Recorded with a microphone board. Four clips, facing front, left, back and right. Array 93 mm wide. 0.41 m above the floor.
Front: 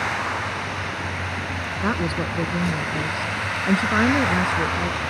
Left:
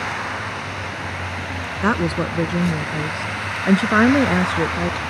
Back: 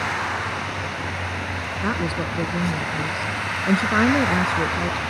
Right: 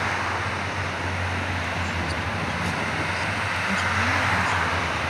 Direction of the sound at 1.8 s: 85° left.